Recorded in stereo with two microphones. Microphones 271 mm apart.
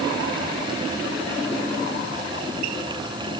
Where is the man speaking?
I don't hear a man speaking.